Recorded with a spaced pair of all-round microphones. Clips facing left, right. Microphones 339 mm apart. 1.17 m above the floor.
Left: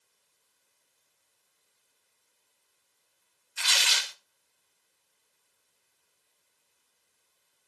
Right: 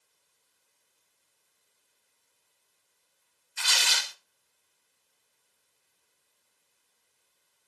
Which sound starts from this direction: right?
Tearing paper, at 3.6 s.